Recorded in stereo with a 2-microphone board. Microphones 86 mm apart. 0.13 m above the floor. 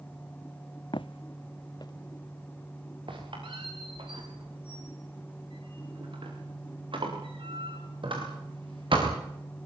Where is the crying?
No crying in this recording.